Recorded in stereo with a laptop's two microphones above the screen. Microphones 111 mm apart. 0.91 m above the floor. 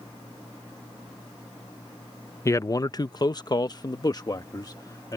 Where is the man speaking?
25° left (ahead or behind); by 5.2 s 35° left (ahead or behind).